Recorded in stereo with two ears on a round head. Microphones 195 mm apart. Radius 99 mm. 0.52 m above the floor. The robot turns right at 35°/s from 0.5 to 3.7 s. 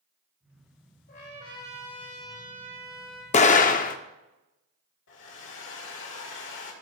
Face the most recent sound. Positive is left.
turn(degrees=60)  # may be behind; listen again after turning